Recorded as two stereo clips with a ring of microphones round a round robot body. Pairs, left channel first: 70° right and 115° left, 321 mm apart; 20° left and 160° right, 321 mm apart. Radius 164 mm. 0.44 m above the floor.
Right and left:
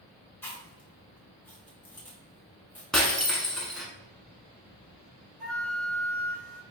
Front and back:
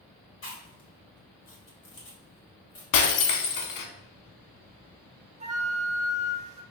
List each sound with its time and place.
0.4 s chewing: 15° left, 1.3 m
2.9 s breaking glass: 20° left, 0.6 m
5.4 s a flute: 150° right, 0.6 m